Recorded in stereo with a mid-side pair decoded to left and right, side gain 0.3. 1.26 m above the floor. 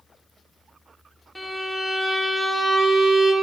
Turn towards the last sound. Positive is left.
turn(degrees=10)